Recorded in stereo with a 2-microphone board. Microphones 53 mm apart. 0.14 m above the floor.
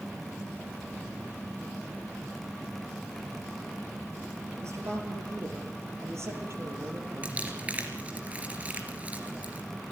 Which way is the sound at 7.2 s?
30° right (ahead or behind).